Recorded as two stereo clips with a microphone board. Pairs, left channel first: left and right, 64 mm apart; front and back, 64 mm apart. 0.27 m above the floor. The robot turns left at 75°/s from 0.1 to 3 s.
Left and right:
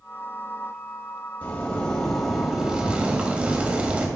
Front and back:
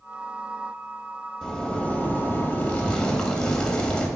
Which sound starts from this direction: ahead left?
A zipper, at 1.4 s.